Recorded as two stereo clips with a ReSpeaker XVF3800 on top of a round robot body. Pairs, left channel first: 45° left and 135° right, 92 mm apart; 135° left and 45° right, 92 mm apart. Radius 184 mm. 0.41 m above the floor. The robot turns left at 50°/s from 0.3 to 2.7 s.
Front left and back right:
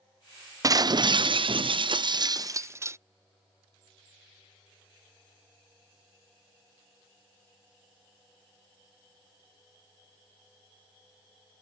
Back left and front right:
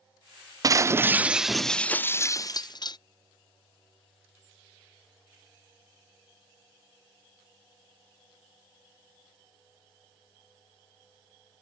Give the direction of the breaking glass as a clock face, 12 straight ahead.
3 o'clock.